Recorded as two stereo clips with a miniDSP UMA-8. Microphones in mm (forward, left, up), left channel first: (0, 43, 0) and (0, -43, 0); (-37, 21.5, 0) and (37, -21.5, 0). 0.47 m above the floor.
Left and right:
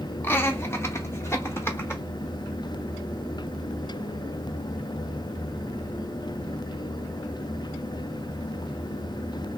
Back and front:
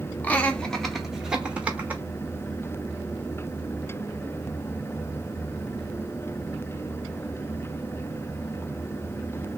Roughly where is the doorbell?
No doorbell in this recording.